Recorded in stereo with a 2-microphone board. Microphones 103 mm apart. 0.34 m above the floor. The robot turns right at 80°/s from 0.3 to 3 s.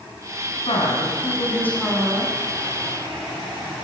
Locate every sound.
0.7 s a woman speaking: 80° left, 3 m; by 2.4 s 145° right, 3 m